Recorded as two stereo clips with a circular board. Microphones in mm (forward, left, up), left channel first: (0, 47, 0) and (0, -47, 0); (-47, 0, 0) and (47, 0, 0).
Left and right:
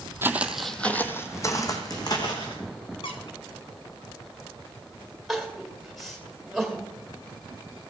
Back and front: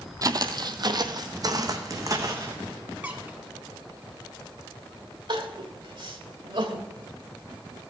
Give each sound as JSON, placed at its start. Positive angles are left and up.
{"t": 0.2, "sound": "footsteps", "azimuth_deg": -30, "distance_m": 0.7}
{"t": 3.0, "sound": "a squeak", "azimuth_deg": 75, "distance_m": 1.4}
{"t": 5.3, "sound": "crying", "azimuth_deg": 0, "distance_m": 1.7}